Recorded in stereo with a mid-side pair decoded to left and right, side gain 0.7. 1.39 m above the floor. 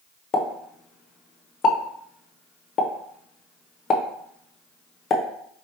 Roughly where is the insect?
I don't hear an insect.